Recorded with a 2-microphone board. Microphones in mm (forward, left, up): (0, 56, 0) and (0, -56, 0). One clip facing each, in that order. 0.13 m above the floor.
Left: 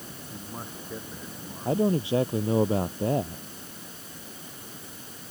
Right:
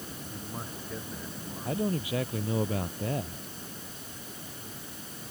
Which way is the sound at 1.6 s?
30° left (ahead or behind).